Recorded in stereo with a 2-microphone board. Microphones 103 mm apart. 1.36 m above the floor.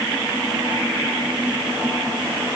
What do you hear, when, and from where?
Only background noise.